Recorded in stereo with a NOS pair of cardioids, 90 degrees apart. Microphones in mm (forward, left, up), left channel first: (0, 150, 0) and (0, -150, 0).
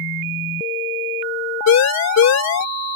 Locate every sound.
1.7 s a siren: 65° left